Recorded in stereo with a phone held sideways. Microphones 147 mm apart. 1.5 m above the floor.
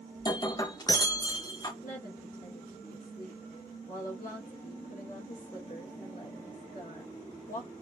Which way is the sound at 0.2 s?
25° left (ahead or behind).